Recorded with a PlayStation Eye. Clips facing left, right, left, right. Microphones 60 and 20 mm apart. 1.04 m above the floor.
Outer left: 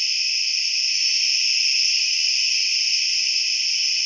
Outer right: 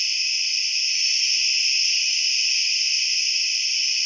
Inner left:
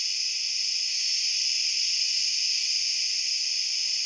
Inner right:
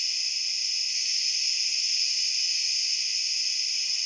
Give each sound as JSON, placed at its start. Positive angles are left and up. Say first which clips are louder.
{"t": 0.0, "sound": "an insect", "louder": "even, even", "side_deg": 70, "distance_m": 1.9}